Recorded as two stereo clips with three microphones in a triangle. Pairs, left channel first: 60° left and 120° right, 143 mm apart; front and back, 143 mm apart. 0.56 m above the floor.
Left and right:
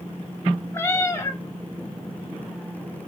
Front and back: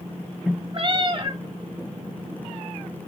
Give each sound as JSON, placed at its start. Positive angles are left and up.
{"t": 0.7, "sound": "a cat meowing", "azimuth_deg": 130, "distance_m": 0.8}